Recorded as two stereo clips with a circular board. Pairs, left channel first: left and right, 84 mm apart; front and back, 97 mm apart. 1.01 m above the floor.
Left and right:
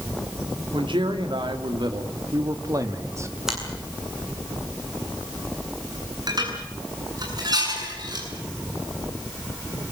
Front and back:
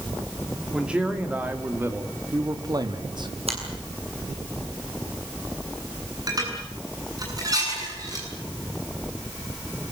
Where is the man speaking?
100° right, 3 m; by 3.3 s 145° right, 2.5 m.